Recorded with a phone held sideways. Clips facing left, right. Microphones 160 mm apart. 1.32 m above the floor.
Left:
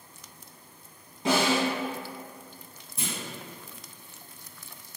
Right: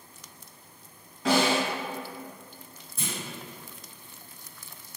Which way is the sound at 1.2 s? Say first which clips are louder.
Right 1 dB; 25° left (ahead or behind).